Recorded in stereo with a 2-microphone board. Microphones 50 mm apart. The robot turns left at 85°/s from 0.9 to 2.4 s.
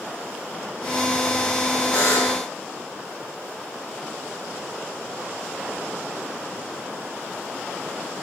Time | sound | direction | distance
1.9 | a buzzer | 150° left | 6 m